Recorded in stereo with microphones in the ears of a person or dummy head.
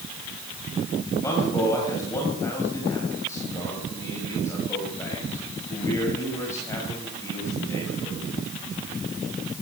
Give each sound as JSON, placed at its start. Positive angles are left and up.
{"t": 1.2, "sound": "a man speaking", "side_deg": 15, "distance_m": 6.0}